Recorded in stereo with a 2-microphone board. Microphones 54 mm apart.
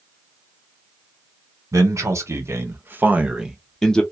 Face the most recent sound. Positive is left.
turn(degrees=15)  # may be behind; listen again after turning